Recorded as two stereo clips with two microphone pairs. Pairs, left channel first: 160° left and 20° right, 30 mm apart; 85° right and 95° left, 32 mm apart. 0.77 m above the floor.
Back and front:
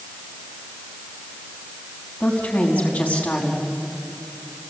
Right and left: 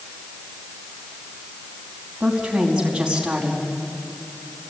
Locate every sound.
2.2 s a woman speaking: 165° left, 5 m